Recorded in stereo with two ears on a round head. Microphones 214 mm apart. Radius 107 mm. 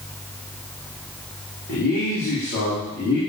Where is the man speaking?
55° left (ahead or behind), 4.5 m; by 3.2 s 35° left (ahead or behind), 4.5 m.